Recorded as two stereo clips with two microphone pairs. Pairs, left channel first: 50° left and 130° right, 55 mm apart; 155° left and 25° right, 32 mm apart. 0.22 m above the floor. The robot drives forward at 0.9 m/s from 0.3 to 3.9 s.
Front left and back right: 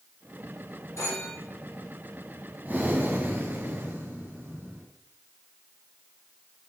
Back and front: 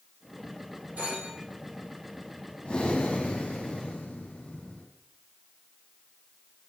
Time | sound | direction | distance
1.0 | a phone ringing | 15° left | 6 m
2.6 | breathing | 170° right | 2.0 m